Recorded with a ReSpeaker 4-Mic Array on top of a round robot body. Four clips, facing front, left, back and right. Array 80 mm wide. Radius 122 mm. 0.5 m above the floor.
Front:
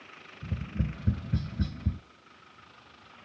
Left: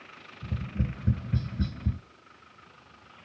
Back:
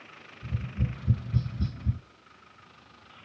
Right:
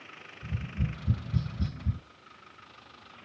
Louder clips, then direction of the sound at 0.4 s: Left 2 dB, even; 40° left.